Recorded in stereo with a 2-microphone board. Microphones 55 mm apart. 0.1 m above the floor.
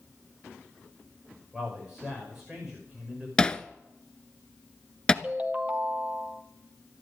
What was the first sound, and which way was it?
A man speaking, 10° right (ahead or behind).